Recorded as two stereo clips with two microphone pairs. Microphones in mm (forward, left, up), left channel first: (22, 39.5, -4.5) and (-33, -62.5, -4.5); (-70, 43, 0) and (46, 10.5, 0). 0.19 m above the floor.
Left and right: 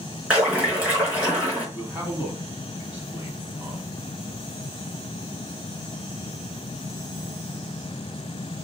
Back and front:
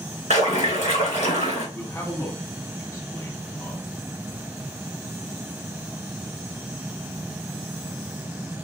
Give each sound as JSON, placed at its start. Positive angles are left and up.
{"t": 0.3, "sound": "a splash", "azimuth_deg": 160, "distance_m": 3.0}
{"t": 1.8, "sound": "a man speaking", "azimuth_deg": -165, "distance_m": 1.2}